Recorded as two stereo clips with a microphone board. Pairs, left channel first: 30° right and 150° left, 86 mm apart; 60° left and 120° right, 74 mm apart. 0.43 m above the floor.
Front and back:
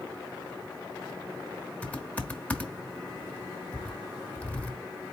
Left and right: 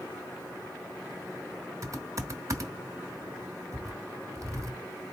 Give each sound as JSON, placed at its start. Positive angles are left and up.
{"t": 1.8, "sound": "typing on a keyboard", "azimuth_deg": -95, "distance_m": 1.1}